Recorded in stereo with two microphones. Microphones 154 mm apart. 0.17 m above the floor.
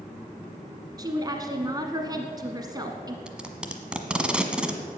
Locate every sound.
1.0 s a woman speaking: 25° right (ahead or behind), 1.3 m
3.3 s tape being pulled: 5° right (ahead or behind), 1.3 m